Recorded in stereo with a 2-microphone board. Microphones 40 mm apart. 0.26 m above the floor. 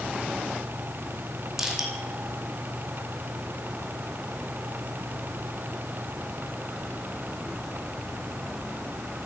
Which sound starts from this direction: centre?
Crushing, at 1.6 s.